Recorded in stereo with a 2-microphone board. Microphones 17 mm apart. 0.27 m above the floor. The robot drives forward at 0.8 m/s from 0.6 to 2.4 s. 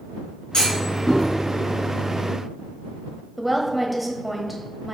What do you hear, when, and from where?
0.5 s a clunk: 50° left (ahead or behind), 3.5 m; by 1.3 s 55° left (ahead or behind), 3 m
3.4 s a woman speaking: 10° right (ahead or behind), 1.1 m